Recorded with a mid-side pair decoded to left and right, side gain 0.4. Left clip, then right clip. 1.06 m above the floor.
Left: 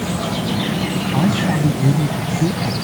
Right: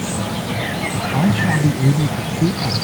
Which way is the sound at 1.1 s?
5° right.